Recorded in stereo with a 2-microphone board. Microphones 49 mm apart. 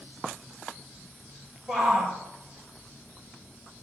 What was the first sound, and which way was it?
A shout, 5° right (ahead or behind).